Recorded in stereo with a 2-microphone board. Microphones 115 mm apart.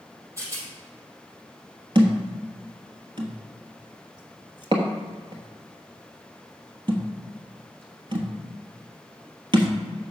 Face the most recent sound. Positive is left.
turn(degrees=-45)  # may be behind; listen again after turning